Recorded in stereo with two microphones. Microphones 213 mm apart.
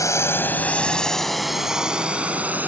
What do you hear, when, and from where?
0.0 s a drone: 15° left (ahead or behind); by 2.7 s 10° right (ahead or behind)